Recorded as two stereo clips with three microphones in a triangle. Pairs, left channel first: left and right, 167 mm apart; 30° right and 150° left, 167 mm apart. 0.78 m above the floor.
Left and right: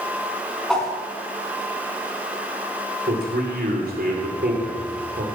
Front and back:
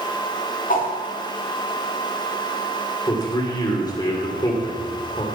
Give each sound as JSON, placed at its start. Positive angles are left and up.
{"t": 0.7, "sound": "a whoosh", "azimuth_deg": 5, "distance_m": 2.5}
{"t": 3.1, "sound": "a man speaking", "azimuth_deg": -95, "distance_m": 3.0}